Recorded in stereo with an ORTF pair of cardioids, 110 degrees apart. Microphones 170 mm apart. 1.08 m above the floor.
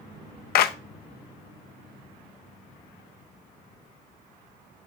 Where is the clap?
65° left, 0.8 m.